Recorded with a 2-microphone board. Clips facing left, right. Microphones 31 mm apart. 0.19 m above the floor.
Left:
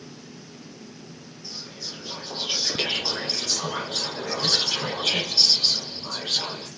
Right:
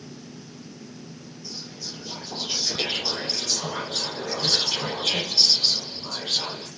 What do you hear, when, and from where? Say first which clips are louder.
1.4 s whispering: left 1 dB; 55° left (ahead or behind), 2.5 m